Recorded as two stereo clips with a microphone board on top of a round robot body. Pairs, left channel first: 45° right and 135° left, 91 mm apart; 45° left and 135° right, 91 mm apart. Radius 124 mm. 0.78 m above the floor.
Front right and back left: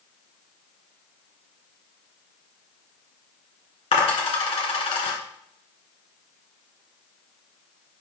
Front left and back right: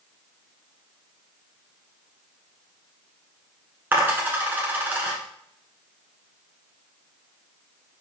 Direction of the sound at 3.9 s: 65° right.